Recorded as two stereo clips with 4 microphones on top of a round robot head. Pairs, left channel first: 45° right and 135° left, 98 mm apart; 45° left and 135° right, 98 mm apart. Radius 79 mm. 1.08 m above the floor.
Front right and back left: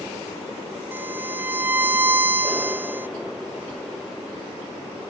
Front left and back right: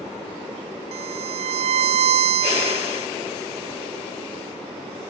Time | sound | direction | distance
0.9 | a violin | 155° right | ?